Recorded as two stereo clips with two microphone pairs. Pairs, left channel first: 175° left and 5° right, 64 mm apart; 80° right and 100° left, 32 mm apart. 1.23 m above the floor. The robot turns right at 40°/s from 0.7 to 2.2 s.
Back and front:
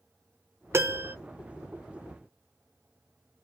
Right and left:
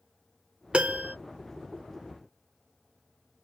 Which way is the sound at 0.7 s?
45° left.